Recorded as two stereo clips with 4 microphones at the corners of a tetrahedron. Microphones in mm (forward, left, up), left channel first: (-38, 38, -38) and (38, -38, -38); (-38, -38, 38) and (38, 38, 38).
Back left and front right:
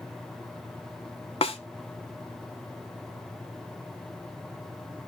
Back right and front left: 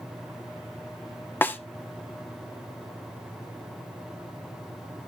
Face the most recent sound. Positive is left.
turn(degrees=155)